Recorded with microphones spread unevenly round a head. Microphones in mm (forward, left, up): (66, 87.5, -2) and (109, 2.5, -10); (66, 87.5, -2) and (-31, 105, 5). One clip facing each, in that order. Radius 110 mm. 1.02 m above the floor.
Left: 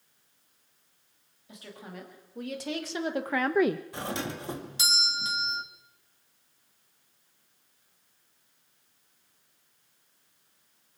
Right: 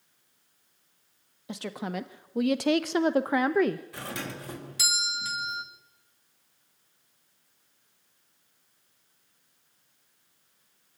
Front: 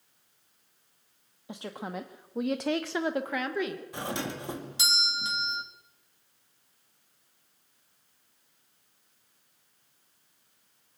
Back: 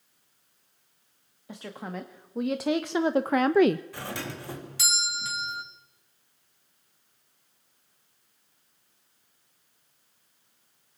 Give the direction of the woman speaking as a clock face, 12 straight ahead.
3 o'clock.